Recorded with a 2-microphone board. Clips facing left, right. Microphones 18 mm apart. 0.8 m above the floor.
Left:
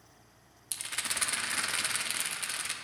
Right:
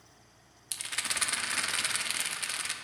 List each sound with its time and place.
0.7 s a rattle: 10° right (ahead or behind), 0.6 m